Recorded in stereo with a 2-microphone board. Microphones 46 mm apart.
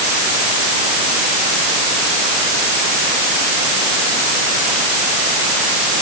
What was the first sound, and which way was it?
Only background noise.